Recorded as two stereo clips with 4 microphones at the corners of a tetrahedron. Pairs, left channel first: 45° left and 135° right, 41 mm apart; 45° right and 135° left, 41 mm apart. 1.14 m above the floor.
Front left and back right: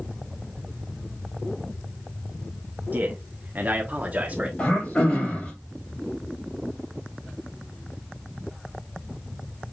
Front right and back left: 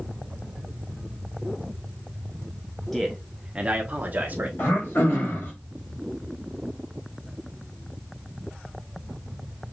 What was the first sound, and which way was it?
A man speaking, 130° right.